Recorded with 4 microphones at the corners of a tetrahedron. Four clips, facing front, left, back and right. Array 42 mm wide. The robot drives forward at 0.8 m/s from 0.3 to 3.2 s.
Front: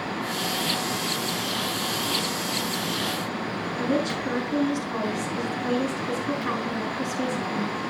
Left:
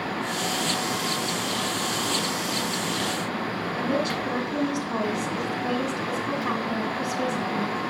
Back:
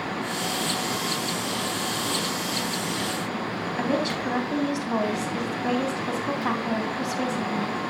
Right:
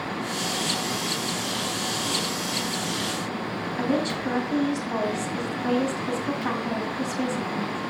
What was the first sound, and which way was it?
A woman speaking, 165° right.